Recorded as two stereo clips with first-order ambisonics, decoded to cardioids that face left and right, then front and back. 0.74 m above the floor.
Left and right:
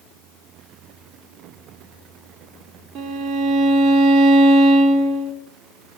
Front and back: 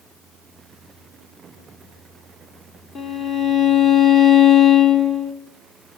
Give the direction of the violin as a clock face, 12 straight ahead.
2 o'clock.